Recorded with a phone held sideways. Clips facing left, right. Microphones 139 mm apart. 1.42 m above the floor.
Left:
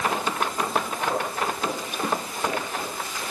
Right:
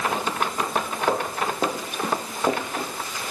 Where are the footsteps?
55° right (ahead or behind), 7.5 m; by 2.9 s 40° right (ahead or behind), 7 m.